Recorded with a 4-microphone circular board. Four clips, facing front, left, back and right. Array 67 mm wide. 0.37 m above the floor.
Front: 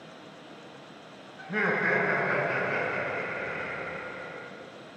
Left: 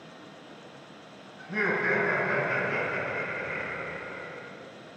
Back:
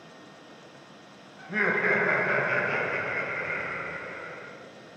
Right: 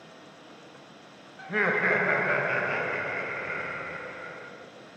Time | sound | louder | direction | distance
1.4 | laughter | right 2 dB, back 1 dB | 80° right | 1.2 m